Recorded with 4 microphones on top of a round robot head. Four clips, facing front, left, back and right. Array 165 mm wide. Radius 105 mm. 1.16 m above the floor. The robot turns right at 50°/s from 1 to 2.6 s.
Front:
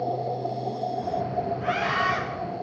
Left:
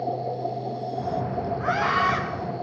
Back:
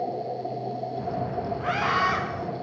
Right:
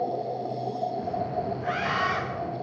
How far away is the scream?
About 9.5 m.